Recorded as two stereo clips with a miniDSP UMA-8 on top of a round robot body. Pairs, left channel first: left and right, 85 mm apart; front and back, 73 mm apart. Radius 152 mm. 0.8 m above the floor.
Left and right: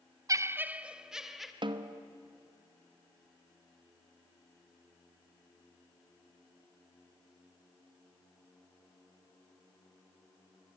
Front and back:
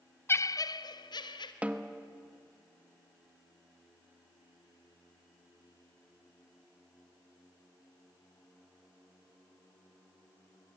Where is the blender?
No blender in this recording.